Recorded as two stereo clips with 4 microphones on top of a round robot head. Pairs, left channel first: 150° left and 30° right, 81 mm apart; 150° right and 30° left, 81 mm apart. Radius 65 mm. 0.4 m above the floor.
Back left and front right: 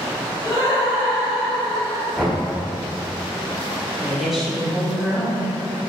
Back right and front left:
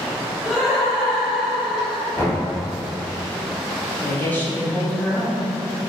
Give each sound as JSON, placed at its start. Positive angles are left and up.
{"t": 0.4, "sound": "laughter", "azimuth_deg": -55, "distance_m": 1.9}
{"t": 2.1, "sound": "knocking", "azimuth_deg": -115, "distance_m": 1.4}
{"t": 4.0, "sound": "a woman speaking", "azimuth_deg": -115, "distance_m": 0.8}